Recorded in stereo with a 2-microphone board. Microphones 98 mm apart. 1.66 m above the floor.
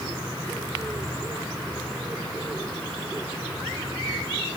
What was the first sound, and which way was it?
Only background noise.